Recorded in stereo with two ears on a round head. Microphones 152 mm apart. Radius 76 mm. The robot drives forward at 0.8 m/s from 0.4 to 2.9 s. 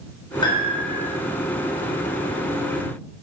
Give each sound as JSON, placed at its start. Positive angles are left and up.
{"t": 0.4, "sound": "a piano", "side_deg": 30, "distance_m": 3.5}